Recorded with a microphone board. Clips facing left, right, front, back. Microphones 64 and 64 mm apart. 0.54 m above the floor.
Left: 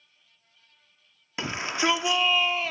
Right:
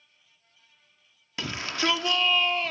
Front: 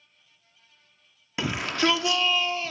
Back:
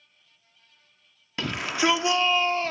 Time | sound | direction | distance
1.4 | a shout | 65° left | 0.9 m